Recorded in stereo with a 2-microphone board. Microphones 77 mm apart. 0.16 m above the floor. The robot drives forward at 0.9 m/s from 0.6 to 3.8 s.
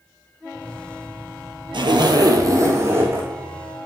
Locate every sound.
1.7 s a zipper: 80° right, 0.7 m; by 3.3 s 25° right (ahead or behind), 1.6 m